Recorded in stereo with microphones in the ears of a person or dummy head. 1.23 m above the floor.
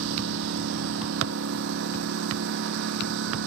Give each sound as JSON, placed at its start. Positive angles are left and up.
{"t": 0.0, "sound": "a lawn mower", "side_deg": -75}